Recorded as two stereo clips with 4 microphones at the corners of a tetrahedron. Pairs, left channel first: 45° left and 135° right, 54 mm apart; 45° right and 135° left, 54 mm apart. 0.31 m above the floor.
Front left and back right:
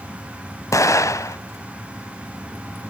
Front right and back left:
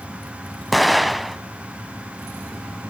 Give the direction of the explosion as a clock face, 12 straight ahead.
10 o'clock.